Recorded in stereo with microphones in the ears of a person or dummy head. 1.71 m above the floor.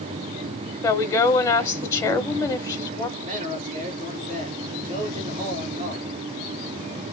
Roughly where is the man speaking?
Right.